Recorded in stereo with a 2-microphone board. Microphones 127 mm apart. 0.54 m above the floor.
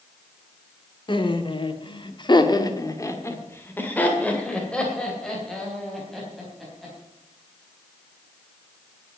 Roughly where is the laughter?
Left.